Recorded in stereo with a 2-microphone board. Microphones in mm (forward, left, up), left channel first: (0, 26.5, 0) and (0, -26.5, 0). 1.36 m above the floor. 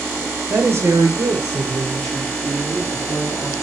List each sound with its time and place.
0.5 s a woman speaking: 40° right (ahead or behind), 1.0 m; by 3.5 s 50° right (ahead or behind), 3 m